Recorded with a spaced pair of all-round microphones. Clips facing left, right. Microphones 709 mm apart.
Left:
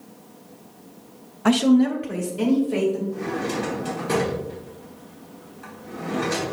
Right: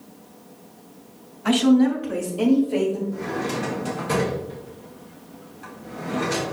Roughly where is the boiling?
I don't hear boiling.